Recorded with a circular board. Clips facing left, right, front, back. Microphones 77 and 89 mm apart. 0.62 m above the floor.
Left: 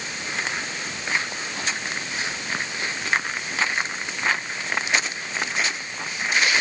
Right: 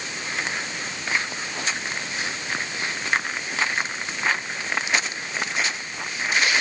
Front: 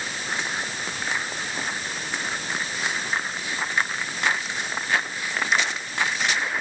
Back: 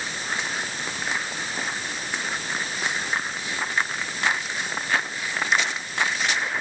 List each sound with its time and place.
Only background noise.